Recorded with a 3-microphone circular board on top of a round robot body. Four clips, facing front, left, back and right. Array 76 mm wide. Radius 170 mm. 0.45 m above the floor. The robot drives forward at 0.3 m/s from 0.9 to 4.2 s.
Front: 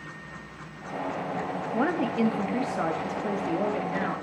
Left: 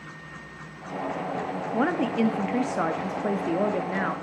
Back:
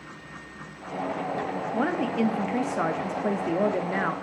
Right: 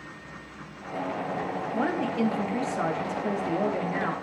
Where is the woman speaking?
85° left, 1.1 m; by 4.1 s 150° left, 1.3 m.